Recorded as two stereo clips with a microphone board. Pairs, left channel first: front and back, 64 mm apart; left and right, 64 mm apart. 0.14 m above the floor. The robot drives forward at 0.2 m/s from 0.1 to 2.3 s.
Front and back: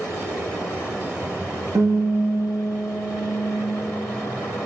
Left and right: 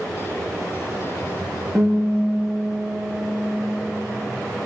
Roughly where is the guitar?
Behind.